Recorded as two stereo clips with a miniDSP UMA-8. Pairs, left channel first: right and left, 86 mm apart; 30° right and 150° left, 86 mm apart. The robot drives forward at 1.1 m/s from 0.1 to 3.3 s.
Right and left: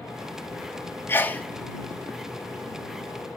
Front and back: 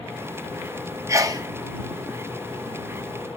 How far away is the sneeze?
About 0.8 m.